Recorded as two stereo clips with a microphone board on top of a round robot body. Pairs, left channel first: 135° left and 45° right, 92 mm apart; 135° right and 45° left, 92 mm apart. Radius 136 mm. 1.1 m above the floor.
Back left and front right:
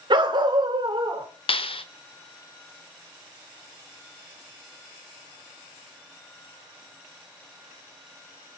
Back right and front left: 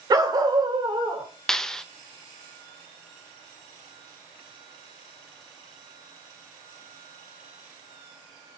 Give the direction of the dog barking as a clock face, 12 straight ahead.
12 o'clock.